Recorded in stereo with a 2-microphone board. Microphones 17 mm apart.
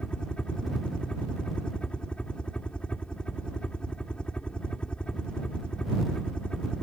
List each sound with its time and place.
0.0 s a helicopter: 65° left (ahead or behind)